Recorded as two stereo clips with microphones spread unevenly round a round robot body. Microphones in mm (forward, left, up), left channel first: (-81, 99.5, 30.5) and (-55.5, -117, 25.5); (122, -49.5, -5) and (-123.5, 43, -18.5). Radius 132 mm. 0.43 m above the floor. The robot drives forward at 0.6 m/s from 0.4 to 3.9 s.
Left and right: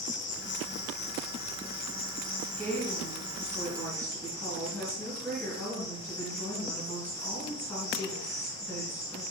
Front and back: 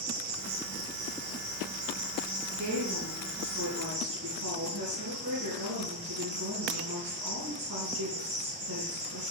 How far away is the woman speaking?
About 3.5 m.